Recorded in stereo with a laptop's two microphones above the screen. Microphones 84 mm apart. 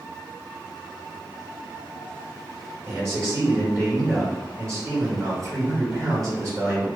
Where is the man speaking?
40° right (ahead or behind), 1.8 m.